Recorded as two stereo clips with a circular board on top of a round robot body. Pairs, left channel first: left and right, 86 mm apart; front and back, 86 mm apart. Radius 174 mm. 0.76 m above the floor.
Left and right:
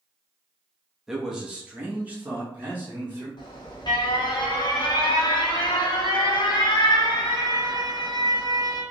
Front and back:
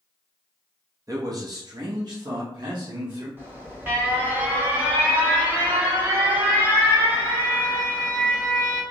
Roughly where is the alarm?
Behind left.